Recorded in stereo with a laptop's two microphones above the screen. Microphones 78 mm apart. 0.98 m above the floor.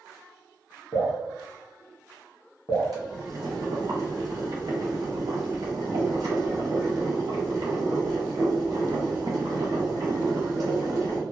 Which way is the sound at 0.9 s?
50° left (ahead or behind).